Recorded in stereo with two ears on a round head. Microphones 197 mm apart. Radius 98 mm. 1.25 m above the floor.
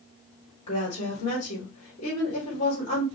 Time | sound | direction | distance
0.7 | a woman speaking | 30° left (ahead or behind) | 3.5 m